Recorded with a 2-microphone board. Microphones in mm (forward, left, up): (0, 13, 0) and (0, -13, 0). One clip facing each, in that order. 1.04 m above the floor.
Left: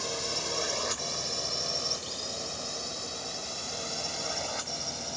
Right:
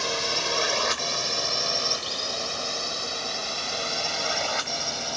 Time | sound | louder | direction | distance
0.0 | a drone | right 7 dB | 40° right (ahead or behind) | ?